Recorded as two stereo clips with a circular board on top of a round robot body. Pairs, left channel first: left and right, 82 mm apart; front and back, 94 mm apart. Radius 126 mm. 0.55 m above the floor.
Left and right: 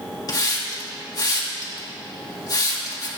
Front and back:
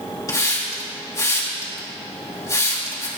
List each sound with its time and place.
0.3 s a hiss: 55° left, 3 m